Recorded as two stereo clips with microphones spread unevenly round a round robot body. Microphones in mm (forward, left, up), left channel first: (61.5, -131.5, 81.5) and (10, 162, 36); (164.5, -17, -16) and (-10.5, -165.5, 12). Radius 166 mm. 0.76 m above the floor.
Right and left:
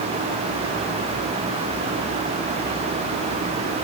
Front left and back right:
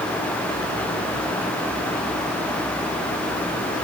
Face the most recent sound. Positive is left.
No sound to turn to.